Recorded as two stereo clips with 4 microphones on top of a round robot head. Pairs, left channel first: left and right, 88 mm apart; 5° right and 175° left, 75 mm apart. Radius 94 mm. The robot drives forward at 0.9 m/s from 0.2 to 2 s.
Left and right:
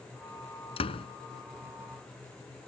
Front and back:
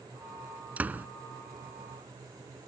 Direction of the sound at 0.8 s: 105° left.